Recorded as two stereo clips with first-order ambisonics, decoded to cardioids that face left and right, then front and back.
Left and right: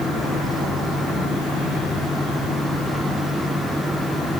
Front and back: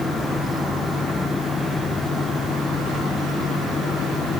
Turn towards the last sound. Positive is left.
No sound to turn to.